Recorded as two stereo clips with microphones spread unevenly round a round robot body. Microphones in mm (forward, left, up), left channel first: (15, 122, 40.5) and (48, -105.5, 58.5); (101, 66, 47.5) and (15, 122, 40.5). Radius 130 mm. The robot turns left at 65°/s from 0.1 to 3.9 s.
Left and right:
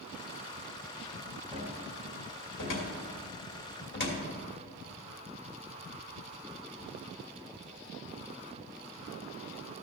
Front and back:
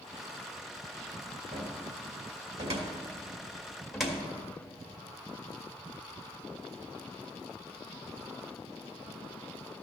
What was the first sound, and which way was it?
A cupboard door, 145° right.